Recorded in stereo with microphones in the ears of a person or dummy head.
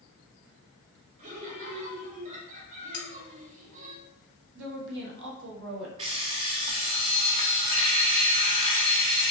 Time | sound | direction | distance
1.2 | laughter | 40° right (ahead or behind) | 2.5 m
2.9 | cutlery clinking | 70° left (ahead or behind) | 1.0 m
4.5 | a woman speaking | 65° right (ahead or behind) | 1.3 m
6.0 | an alarm clock | 35° right (ahead or behind) | 0.9 m